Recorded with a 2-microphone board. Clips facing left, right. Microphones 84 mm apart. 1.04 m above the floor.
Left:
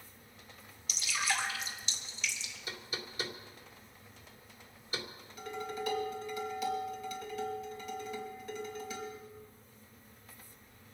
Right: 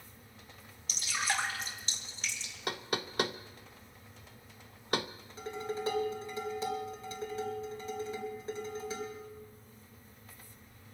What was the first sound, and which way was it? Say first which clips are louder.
Dripping: right 1 dB; 45° right (ahead or behind).